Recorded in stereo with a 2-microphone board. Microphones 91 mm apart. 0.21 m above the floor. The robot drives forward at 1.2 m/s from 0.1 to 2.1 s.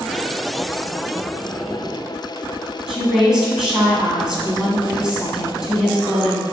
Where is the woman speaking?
5° right (ahead or behind), 1.5 m.